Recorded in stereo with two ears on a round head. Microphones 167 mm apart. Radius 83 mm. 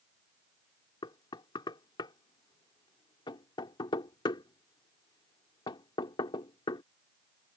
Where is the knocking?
25° left (ahead or behind).